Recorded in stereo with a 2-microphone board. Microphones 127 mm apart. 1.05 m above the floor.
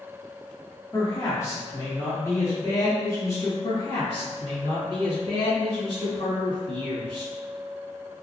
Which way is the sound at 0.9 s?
25° left (ahead or behind).